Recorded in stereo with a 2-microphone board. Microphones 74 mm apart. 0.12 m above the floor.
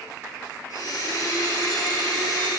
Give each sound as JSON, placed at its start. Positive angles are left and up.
{"t": 0.7, "sound": "a blender", "side_deg": 60, "distance_m": 1.5}